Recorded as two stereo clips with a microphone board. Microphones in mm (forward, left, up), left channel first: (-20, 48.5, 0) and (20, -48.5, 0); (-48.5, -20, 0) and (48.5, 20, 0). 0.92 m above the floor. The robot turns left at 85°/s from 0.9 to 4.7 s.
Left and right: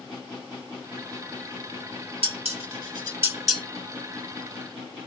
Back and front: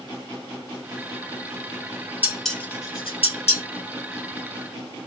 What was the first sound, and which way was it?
Dishes clattering, 50° right.